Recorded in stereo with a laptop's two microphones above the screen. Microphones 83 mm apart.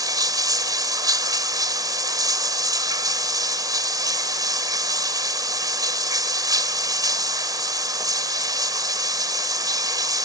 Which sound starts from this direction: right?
Running water, at 0.0 s.